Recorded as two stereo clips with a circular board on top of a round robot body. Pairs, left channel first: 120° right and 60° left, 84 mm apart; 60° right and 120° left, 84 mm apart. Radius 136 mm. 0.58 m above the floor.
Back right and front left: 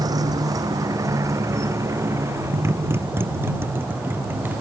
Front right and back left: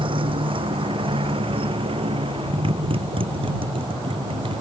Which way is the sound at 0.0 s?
105° left.